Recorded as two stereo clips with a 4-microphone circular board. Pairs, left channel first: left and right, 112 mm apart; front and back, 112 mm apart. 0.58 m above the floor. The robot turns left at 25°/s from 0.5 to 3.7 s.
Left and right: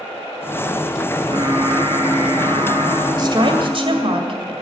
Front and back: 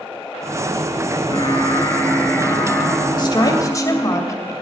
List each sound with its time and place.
1.1 s singing: 45° right, 3 m; by 4.2 s 105° right, 3 m
3.2 s a woman speaking: 45° right, 2.5 m; by 4.5 s 55° right, 2.5 m